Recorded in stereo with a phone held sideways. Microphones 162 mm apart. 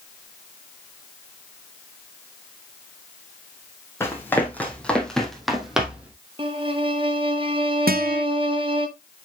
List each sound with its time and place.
4.0 s running footsteps: 15° left (ahead or behind), 2.5 m; by 6.1 s 10° right (ahead or behind), 2 m
6.4 s a violin: 35° right (ahead or behind), 1.1 m
7.9 s a guitar: 70° right (ahead or behind), 0.7 m